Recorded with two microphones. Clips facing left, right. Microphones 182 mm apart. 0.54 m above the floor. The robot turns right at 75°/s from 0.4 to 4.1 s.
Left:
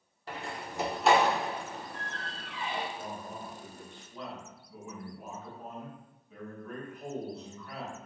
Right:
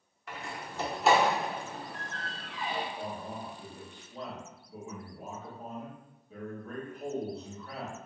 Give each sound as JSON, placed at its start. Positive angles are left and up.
{"t": 0.3, "sound": "a door slam", "side_deg": 30, "distance_m": 1.0}
{"t": 3.0, "sound": "a man speaking", "azimuth_deg": -120, "distance_m": 1.8}